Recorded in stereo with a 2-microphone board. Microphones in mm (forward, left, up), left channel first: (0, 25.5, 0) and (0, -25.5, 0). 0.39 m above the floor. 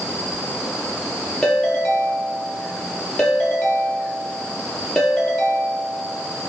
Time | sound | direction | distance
1.4 | a ringtone | 10° left (ahead or behind) | 3.5 m